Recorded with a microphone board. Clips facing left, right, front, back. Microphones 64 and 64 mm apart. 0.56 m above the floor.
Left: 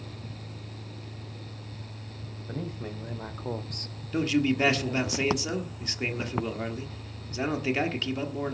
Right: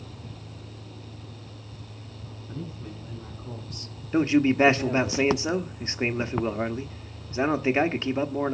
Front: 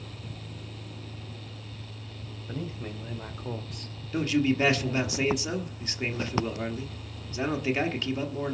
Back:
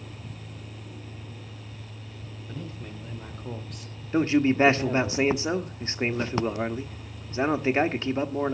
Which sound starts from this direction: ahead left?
A man speaking, at 2.5 s.